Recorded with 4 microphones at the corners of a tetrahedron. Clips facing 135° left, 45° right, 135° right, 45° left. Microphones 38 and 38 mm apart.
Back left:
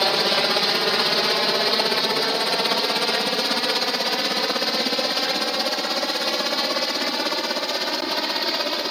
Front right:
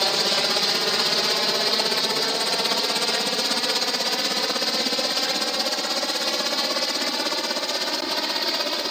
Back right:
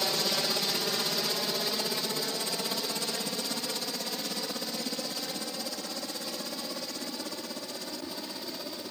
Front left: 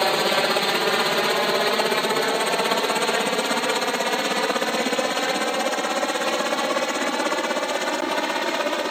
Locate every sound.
0.0 s a helicopter: 65° left; by 8.9 s 55° left